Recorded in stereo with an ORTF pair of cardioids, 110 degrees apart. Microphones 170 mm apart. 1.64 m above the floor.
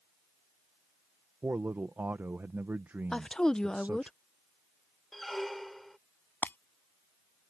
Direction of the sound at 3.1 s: 5° left.